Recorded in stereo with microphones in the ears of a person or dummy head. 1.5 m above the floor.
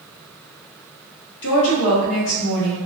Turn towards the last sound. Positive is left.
turn(degrees=75)  # may be behind; listen again after turning